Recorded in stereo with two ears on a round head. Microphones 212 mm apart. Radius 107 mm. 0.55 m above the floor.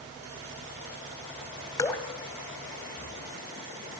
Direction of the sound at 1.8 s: 15° left (ahead or behind).